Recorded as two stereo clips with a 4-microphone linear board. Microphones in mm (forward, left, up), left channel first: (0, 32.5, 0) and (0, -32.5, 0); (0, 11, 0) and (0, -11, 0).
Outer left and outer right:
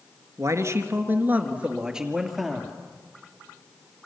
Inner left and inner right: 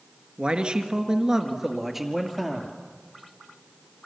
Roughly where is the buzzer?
No buzzer in this recording.